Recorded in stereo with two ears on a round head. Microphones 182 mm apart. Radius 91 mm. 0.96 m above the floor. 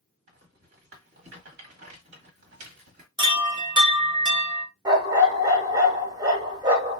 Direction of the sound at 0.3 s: 55° right (ahead or behind).